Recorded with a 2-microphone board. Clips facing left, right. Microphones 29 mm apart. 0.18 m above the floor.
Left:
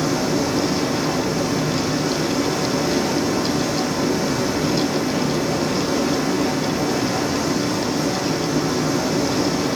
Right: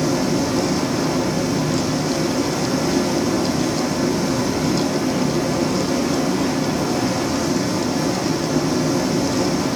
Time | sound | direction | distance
0.0 | running water | 5° left (ahead or behind) | 5 m